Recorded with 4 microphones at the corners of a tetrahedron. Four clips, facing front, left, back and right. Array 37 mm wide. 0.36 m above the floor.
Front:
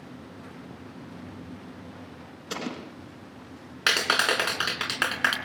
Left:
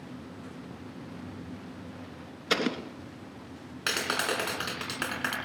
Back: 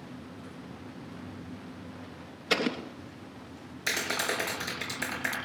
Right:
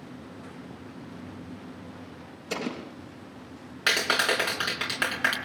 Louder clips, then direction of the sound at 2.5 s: Left 5 dB, back 6 dB; 115° left.